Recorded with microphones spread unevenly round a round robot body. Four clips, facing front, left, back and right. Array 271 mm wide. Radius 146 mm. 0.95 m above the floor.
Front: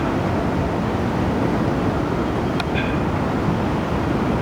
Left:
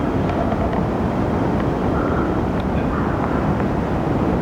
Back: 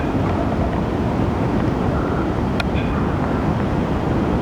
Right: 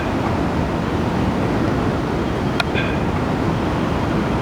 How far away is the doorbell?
No doorbell in this recording.